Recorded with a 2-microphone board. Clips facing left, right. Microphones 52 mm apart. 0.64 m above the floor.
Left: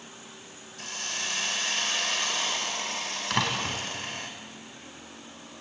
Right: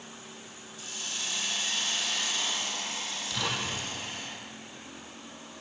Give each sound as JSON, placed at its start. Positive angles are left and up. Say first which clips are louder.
{"t": 0.8, "sound": "a hiss", "louder": "left 4 dB", "side_deg": 60, "distance_m": 3.5}
{"t": 3.3, "sound": "a door slam", "louder": "left 5 dB", "side_deg": 60, "distance_m": 3.5}